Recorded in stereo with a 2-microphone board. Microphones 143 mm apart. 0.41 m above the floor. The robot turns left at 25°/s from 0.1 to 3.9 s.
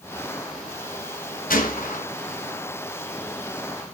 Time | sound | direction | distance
1.5 | a gunshot | 75° left (ahead or behind) | 1.6 m